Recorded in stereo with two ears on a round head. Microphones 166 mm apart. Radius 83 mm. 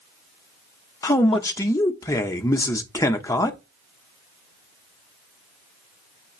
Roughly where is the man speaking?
Centre.